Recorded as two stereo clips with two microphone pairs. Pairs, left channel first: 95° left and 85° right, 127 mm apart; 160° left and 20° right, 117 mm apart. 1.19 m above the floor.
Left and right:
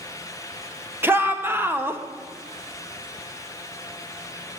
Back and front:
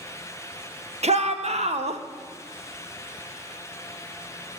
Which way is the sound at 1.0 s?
10° right.